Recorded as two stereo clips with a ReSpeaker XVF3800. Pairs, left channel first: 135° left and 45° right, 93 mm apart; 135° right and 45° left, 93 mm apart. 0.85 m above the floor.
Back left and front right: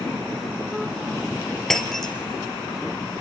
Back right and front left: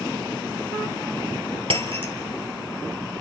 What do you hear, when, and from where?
1.7 s breaking glass: 50° left, 3 m